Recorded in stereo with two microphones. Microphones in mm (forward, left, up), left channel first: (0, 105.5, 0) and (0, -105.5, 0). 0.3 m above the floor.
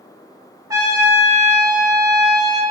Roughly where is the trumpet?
Centre.